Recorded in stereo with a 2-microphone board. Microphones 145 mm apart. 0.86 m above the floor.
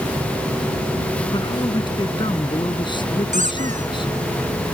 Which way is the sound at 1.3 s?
35° left (ahead or behind).